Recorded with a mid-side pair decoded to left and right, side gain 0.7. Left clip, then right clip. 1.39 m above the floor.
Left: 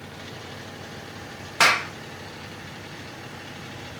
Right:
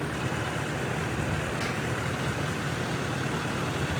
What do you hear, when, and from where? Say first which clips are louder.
0.0 s a vehicle: right 8 dB; 60° right; by 4.0 s 55° right
1.6 s a clap: left 12 dB; 65° left